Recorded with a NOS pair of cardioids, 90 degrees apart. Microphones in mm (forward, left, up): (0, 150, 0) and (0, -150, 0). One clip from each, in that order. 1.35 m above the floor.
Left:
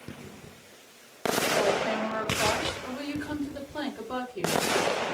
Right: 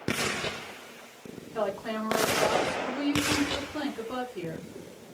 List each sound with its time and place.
1.5 s a woman speaking: 5° right, 3.5 m